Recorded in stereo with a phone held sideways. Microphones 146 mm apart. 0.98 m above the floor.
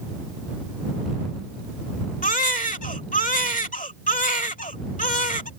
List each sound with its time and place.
2.2 s a baby crying: 65° left (ahead or behind)